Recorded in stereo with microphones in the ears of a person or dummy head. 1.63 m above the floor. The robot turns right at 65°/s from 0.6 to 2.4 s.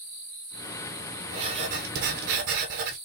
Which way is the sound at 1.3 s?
150° right.